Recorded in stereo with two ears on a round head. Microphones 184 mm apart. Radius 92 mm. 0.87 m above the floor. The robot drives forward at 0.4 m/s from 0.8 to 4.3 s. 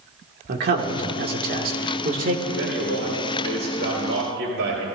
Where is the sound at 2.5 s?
75° right (ahead or behind), 5 m; by 4.8 s 65° right (ahead or behind), 5 m.